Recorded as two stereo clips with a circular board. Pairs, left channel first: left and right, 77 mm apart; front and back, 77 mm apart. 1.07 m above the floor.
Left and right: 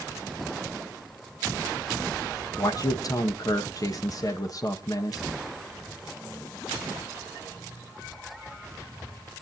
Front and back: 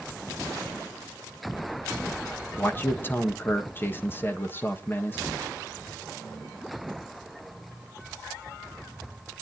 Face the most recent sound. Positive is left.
turn(degrees=60)